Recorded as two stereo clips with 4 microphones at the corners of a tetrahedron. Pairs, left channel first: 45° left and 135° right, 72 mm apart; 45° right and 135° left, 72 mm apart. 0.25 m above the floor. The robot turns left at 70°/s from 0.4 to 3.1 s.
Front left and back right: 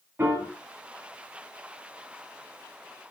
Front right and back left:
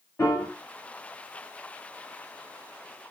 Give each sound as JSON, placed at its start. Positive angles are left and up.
{"t": 0.2, "sound": "a piano", "azimuth_deg": -75, "distance_m": 1.0}